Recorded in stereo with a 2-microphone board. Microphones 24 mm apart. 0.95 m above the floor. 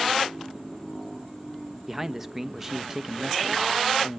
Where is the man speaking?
10° right (ahead or behind), 1.0 m.